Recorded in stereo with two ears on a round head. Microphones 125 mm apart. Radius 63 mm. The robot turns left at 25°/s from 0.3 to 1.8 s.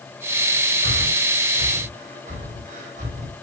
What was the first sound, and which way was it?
Breathing, 80° right.